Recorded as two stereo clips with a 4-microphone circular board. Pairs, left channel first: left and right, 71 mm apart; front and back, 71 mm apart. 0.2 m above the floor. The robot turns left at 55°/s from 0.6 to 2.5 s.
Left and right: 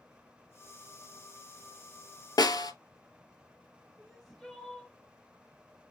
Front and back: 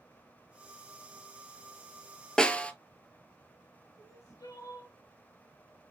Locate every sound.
2.4 s a snare drum: 80° left, 0.6 m; by 2.7 s 75° left, 0.6 m
4.0 s crying: 5° left, 3 m